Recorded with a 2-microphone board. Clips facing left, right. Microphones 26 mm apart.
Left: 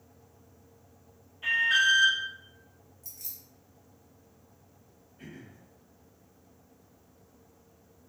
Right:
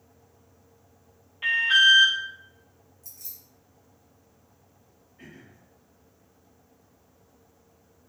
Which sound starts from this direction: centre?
Keys jangling, at 3.0 s.